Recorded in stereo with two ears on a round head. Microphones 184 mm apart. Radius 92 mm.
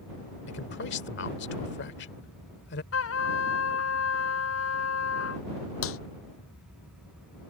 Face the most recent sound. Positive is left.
turn(degrees=75)  # may be behind; listen again after turning